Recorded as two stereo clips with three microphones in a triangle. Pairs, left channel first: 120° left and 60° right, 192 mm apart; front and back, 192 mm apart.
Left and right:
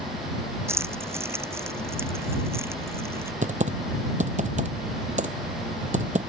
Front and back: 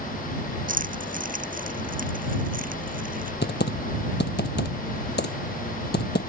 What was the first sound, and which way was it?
Keys jangling, 135° right.